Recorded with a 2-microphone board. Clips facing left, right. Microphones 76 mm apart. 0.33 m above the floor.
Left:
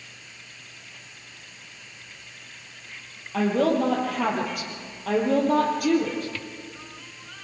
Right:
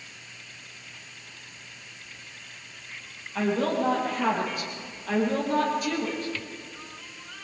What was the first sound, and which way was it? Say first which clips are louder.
A woman speaking: left 4 dB; 75° left (ahead or behind).